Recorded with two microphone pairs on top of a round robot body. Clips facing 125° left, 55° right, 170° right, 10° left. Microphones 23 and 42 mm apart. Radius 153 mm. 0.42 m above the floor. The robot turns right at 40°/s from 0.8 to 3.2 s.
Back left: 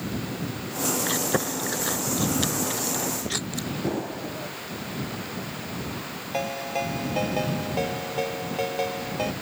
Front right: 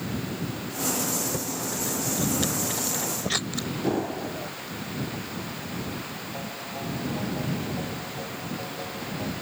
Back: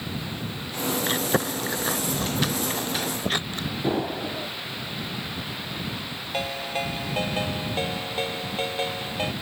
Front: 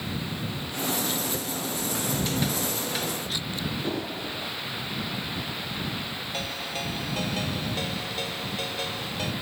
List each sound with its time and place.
1.1 s chewing: 145° left; by 3.7 s 130° right
3.8 s an explosion: 115° right
6.3 s a ringtone: 125° left